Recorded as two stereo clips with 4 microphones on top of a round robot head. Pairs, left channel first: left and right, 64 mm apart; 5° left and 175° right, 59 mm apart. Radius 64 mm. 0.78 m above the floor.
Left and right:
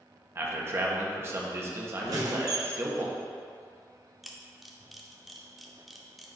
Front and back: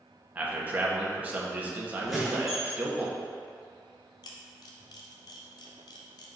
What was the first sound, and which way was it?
A man speaking, 120° right.